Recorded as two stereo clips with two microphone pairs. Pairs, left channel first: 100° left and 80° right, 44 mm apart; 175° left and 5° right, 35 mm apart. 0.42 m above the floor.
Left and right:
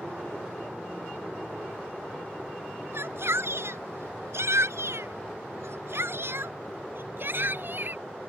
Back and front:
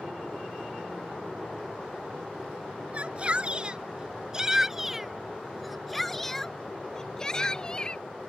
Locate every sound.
2.9 s a shout: 55° right; by 8.0 s 120° right